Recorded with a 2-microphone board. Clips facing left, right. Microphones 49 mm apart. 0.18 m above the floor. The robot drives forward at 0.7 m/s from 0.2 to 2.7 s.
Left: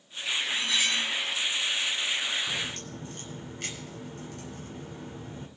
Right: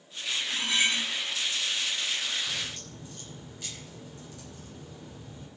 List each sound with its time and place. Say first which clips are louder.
0.5 s cutlery clinking: right 2 dB; 30° right (ahead or behind), 0.7 m; by 1.1 s 25° right (ahead or behind), 0.8 m
2.5 s a crack: left 3 dB; 60° left (ahead or behind), 6 m